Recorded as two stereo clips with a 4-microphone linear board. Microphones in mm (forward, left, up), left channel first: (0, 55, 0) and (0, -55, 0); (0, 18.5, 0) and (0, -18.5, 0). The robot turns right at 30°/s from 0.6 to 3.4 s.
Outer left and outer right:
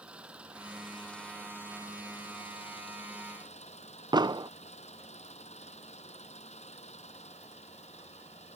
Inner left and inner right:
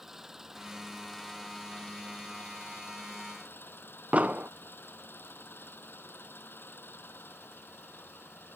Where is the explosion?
40° right (ahead or behind).